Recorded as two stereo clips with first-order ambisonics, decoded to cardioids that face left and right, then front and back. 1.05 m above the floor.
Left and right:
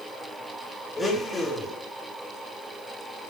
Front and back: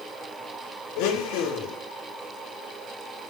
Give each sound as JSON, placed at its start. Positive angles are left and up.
{"t": 1.0, "sound": "a blender", "azimuth_deg": 15, "distance_m": 2.0}